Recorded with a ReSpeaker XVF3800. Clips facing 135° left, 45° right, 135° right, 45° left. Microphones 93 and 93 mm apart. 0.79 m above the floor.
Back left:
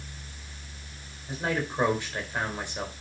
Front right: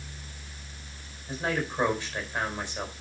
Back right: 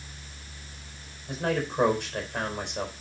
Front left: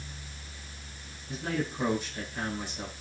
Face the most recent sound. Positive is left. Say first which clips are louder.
# even, back right 4 dB
turn(degrees=-150)